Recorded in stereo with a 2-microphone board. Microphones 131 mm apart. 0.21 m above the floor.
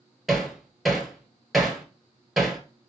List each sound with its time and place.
0.3 s hammering: centre (ahead or behind), 1.1 m